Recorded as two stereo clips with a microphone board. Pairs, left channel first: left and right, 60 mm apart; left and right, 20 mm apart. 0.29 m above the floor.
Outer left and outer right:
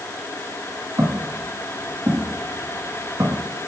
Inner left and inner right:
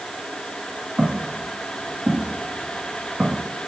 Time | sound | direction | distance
1.0 | footsteps | 55° right (ahead or behind) | 8 m